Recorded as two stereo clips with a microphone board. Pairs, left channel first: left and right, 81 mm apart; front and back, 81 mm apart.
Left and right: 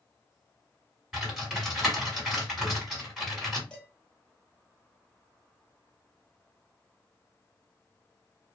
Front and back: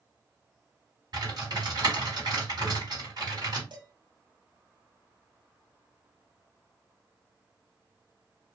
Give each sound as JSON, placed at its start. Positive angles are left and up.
{"t": 1.1, "sound": "typing on a keyboard", "azimuth_deg": -175, "distance_m": 2.0}
{"t": 3.7, "sound": "dishes clattering", "azimuth_deg": 170, "distance_m": 1.2}